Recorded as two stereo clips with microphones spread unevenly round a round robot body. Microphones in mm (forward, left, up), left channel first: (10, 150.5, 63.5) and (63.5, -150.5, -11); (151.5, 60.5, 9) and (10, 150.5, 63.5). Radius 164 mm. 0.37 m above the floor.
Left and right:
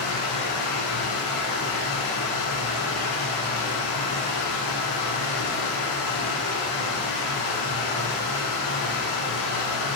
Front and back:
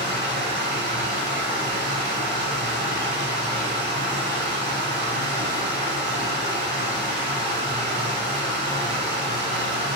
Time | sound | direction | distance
0.0 | running water | 130° left | 1.2 m